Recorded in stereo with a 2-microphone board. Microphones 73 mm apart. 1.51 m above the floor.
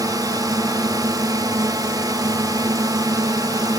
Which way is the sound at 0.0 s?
60° right (ahead or behind).